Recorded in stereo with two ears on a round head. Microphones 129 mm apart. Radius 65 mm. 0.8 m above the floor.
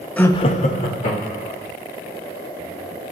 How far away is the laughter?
About 0.5 m.